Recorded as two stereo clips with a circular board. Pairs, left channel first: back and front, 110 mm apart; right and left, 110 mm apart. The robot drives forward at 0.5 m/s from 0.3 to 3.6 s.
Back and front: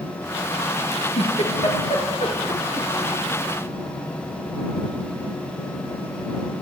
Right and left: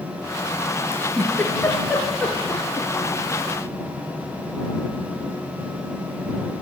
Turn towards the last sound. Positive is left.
turn(degrees=-165)